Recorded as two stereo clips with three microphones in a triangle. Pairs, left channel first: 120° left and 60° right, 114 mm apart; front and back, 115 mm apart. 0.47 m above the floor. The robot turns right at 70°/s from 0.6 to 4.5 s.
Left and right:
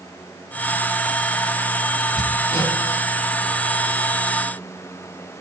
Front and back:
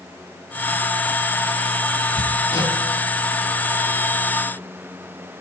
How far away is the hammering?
About 4 m.